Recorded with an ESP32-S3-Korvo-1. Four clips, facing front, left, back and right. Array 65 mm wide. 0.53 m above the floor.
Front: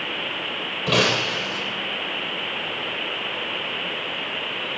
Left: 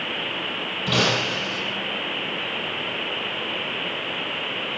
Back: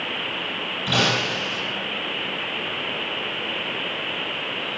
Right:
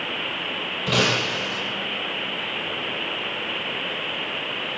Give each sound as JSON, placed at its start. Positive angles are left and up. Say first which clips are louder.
{"t": 0.9, "sound": "breaking glass", "louder": "even, front 1 dB", "azimuth_deg": 0, "distance_m": 7.5}